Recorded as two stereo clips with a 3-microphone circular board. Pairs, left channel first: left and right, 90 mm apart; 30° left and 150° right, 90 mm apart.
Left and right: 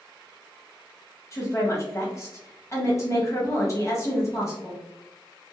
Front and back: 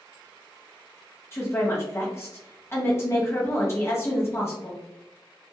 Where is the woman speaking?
65° left, 1.2 m.